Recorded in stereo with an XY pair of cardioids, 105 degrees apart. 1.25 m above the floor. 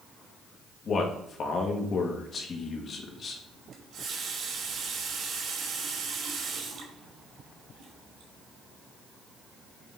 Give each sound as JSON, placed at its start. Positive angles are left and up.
{"t": 0.8, "sound": "a man speaking", "azimuth_deg": 50, "distance_m": 1.6}
{"t": 3.7, "sound": "a running tap", "azimuth_deg": -65, "distance_m": 2.0}